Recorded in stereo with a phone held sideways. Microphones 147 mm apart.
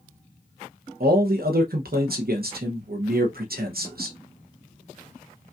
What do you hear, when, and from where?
1.0 s a man speaking: 85° right, 0.7 m